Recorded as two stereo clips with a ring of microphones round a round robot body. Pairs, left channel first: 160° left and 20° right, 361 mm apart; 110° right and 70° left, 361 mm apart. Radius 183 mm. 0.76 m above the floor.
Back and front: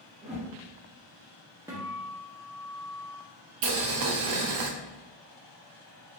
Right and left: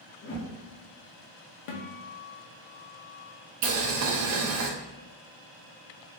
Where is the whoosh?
80° right, 1.0 m.